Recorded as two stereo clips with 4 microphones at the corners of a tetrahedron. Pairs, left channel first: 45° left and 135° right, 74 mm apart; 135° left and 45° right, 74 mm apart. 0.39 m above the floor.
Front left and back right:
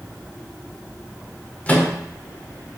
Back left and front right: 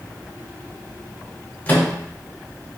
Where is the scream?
I don't hear a scream.